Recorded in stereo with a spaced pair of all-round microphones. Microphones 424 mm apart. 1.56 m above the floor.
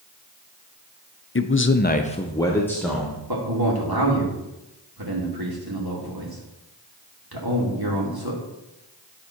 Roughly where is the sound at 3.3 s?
Right.